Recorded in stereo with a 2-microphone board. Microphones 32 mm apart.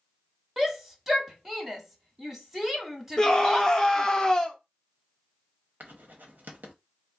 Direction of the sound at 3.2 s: 20° left (ahead or behind).